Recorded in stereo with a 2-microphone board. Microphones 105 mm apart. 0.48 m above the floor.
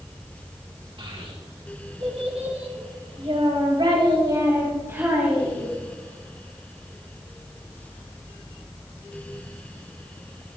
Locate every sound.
1.0 s a child speaking: 60° right (ahead or behind), 4 m; by 5.7 s 10° right (ahead or behind), 3.5 m